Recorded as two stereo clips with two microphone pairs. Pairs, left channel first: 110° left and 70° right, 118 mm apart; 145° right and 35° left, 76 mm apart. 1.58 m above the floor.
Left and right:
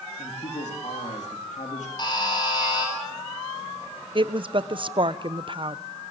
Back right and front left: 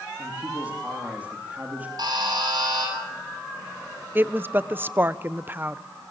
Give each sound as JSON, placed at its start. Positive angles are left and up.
{"t": 0.2, "sound": "a man speaking", "azimuth_deg": 105, "distance_m": 3.5}
{"t": 2.0, "sound": "a buzzer", "azimuth_deg": 60, "distance_m": 7.5}
{"t": 4.2, "sound": "a woman speaking", "azimuth_deg": -25, "distance_m": 0.9}